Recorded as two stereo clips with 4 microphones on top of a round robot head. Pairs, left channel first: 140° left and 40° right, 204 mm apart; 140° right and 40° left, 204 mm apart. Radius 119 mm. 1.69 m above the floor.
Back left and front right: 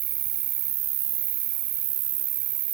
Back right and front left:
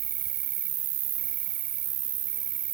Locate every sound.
0.0 s an insect: 15° right